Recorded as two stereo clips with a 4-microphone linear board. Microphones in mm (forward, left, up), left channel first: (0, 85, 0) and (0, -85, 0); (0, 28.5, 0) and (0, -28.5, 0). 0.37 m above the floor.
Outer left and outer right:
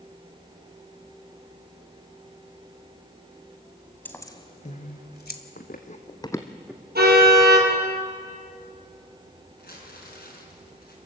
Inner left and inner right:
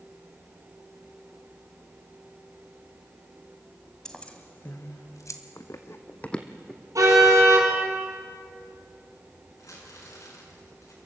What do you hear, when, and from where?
4.0 s keys jangling: 10° left (ahead or behind), 1.7 m; by 5.4 s 70° left (ahead or behind), 1.7 m
5.6 s running footsteps: 65° left (ahead or behind), 1.5 m; by 6.8 s 10° right (ahead or behind), 1.6 m
7.0 s a car horn: 70° right (ahead or behind), 5.5 m
9.6 s crumpling: 70° left (ahead or behind), 5 m